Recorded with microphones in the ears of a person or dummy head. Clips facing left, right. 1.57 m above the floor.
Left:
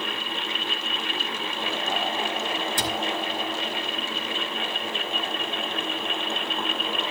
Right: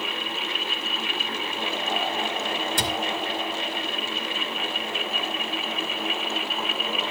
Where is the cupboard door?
55° right (ahead or behind), 2.5 m.